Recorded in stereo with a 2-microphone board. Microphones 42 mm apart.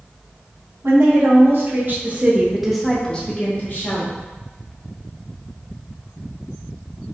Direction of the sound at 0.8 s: 65° right (ahead or behind).